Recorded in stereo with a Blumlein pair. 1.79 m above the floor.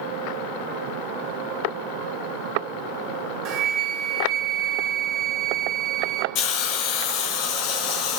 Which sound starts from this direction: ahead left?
A hiss, at 6.3 s.